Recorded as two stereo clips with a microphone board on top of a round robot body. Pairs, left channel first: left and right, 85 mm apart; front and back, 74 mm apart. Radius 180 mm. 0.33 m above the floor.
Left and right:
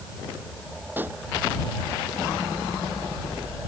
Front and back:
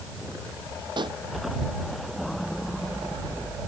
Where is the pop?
160° right.